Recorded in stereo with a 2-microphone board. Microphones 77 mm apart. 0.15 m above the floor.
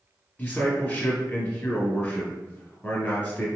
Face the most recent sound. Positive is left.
turn(degrees=20)  # may be behind; listen again after turning